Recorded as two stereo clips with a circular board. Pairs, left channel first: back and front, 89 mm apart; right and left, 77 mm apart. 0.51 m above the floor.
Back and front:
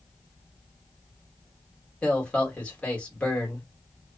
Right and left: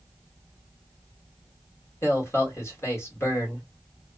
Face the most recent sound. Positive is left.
turn(degrees=-110)